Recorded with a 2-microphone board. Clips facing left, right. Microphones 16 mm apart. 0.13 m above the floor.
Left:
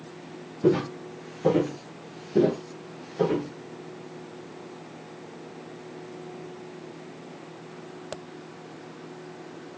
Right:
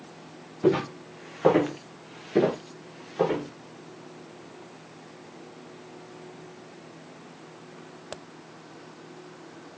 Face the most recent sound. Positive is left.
turn(degrees=-30)  # may be behind; listen again after turning